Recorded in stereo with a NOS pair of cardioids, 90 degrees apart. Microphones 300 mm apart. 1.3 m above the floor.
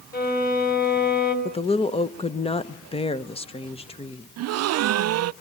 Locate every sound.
0.1 s a violin: 30° left, 6 m
1.4 s a woman speaking: 20° left, 1.0 m
4.4 s a gasp: 55° right, 0.5 m